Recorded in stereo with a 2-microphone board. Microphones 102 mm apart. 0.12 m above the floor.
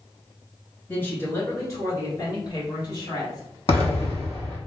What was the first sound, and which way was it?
A woman speaking, 20° left (ahead or behind).